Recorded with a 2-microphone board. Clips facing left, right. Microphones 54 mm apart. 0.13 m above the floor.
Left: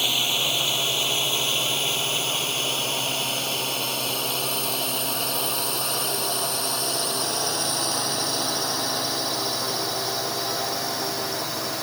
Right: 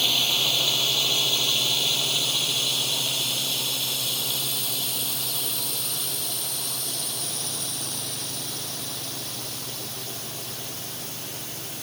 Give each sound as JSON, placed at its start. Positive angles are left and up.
{"t": 0.0, "sound": "a drone", "side_deg": 15}